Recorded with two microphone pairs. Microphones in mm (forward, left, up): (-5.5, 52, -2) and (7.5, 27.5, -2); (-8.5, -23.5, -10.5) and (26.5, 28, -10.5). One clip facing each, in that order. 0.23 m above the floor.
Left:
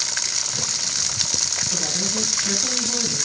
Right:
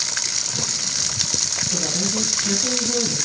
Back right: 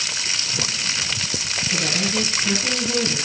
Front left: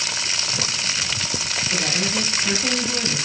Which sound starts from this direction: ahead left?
A woman speaking, at 1.7 s.